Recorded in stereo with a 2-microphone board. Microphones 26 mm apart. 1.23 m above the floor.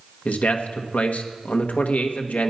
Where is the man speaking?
75° left (ahead or behind), 1.3 m.